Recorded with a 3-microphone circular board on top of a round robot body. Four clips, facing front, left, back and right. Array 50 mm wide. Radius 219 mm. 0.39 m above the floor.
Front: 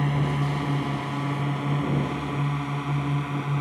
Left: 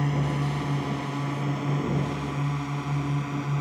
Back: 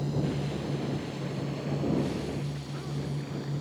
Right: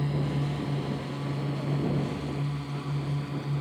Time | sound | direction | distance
0.0 | a drone | 25° left | ?